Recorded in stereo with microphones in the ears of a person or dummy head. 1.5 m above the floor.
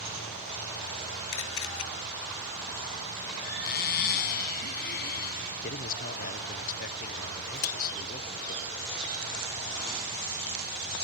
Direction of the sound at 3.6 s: 55° left (ahead or behind).